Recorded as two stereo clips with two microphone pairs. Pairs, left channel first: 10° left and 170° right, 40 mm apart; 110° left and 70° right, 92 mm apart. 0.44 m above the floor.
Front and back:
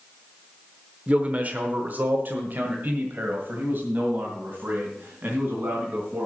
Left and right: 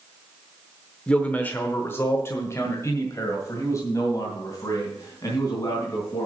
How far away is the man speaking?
About 0.9 m.